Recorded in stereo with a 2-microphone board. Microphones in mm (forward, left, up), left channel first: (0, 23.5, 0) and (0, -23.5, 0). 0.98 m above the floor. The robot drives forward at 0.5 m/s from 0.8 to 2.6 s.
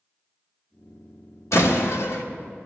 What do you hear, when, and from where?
1.5 s a door slam: 85° left, 1.6 m